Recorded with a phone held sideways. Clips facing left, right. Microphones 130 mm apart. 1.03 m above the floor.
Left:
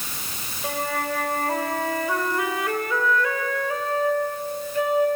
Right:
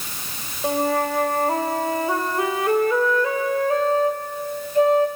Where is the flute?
30° right (ahead or behind), 1.7 m.